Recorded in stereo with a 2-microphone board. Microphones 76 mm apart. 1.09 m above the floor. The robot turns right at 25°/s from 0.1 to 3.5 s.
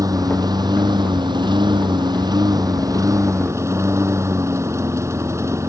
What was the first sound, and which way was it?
A lawn mower, 125° right.